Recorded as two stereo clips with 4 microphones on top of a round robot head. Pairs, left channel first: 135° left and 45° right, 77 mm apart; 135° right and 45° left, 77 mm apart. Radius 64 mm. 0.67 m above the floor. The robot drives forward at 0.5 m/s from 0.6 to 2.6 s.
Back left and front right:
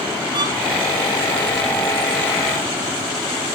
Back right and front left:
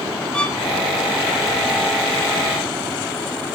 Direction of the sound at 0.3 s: 55° right.